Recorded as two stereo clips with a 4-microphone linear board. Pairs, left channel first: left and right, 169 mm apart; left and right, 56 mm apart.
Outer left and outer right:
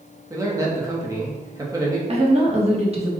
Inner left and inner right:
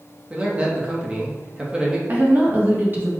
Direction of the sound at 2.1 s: 35° right (ahead or behind).